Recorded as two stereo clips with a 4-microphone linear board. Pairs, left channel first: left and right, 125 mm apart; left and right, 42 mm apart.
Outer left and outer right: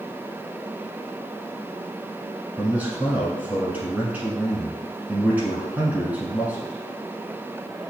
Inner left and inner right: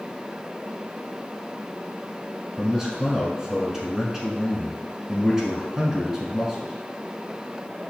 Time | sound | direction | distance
2.6 | a man speaking | 15° right (ahead or behind) | 1.1 m